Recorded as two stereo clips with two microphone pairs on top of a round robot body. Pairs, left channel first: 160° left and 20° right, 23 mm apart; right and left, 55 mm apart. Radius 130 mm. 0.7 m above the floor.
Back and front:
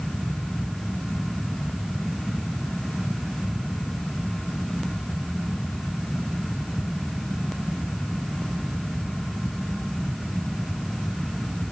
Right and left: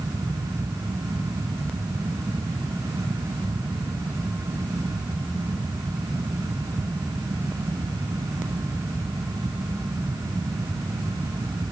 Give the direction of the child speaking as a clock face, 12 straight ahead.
No child speaking in this recording.